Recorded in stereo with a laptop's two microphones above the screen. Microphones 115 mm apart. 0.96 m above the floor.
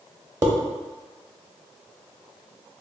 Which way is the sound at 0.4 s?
35° right (ahead or behind).